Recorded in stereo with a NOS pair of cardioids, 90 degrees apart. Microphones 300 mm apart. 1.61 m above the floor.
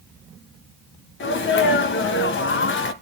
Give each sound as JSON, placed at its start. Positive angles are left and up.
{"t": 1.2, "sound": "a sneeze", "azimuth_deg": 40, "distance_m": 1.8}